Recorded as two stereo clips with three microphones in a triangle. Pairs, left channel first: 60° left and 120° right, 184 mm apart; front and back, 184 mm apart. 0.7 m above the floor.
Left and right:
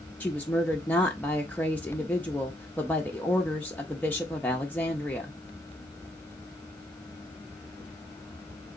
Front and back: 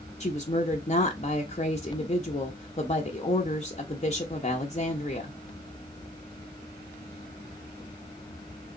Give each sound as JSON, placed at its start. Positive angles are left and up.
{"t": 0.2, "sound": "a woman speaking", "azimuth_deg": -15, "distance_m": 0.6}